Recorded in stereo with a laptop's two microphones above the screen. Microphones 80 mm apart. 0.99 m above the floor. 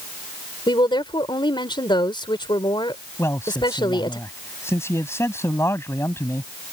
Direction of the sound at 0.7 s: 80° left.